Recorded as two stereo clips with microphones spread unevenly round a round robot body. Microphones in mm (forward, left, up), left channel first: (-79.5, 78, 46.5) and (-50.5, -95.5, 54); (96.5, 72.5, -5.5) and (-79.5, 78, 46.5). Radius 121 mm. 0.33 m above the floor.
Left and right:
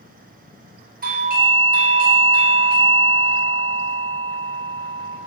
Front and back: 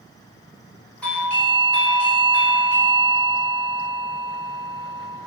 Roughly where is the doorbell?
Right.